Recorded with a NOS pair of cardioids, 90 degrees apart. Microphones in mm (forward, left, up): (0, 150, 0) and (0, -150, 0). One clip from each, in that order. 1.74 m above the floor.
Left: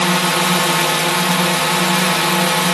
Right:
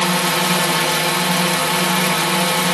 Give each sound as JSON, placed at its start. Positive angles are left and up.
{"t": 0.0, "sound": "a drone", "azimuth_deg": 20}